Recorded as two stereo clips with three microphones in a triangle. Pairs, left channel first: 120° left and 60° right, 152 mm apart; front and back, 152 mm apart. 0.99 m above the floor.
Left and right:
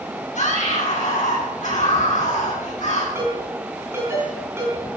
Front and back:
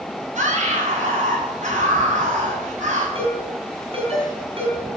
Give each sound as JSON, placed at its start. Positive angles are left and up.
{"t": 0.3, "sound": "a scream", "azimuth_deg": 150, "distance_m": 9.5}
{"t": 3.1, "sound": "a ringtone", "azimuth_deg": -130, "distance_m": 6.5}